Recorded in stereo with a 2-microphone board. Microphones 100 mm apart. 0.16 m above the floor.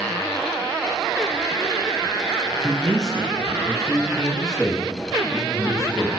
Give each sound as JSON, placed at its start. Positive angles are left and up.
{"t": 2.6, "sound": "a man speaking", "side_deg": 10, "distance_m": 3.0}